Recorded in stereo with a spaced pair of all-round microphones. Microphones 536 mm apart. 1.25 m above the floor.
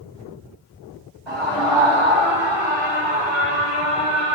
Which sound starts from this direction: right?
A scream, at 1.3 s.